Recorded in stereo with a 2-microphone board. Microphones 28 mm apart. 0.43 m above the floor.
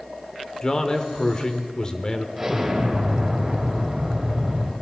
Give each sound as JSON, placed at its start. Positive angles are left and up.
{"t": 0.6, "sound": "a man speaking", "side_deg": 30, "distance_m": 1.0}
{"t": 2.4, "sound": "an explosion", "side_deg": -10, "distance_m": 2.5}